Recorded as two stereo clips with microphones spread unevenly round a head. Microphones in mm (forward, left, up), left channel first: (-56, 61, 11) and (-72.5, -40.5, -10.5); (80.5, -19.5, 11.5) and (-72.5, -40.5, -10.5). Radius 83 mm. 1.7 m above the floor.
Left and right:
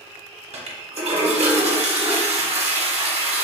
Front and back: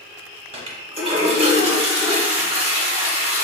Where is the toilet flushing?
120° right, 0.7 m.